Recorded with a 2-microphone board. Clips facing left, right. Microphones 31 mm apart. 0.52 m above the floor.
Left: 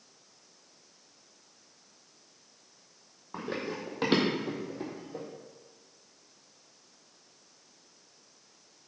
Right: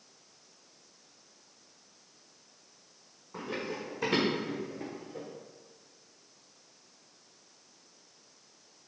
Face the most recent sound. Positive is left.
turn(degrees=45)  # may be behind; listen again after turning